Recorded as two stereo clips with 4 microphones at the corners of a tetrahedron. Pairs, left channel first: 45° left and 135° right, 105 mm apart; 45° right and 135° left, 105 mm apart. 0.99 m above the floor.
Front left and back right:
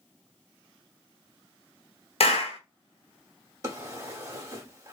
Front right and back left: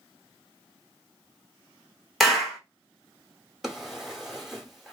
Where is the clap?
45° left, 0.7 m.